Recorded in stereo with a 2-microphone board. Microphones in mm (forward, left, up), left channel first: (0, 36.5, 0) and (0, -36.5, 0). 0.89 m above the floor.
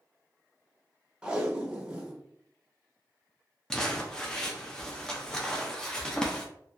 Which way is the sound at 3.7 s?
10° left (ahead or behind).